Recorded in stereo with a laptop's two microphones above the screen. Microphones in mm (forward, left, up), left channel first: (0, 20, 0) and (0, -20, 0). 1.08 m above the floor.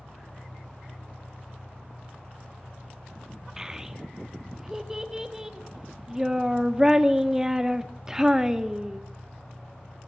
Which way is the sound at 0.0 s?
85° left.